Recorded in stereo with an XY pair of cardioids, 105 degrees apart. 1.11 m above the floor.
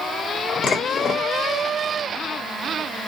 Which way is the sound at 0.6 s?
45° left.